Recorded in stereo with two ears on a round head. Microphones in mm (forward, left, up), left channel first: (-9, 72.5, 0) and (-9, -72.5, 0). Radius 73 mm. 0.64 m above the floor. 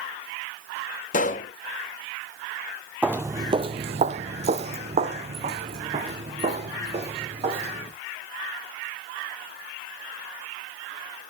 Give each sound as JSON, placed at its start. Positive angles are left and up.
{"t": 1.1, "sound": "a pop", "side_deg": 50, "distance_m": 1.5}
{"t": 3.0, "sound": "footsteps", "side_deg": -5, "distance_m": 0.7}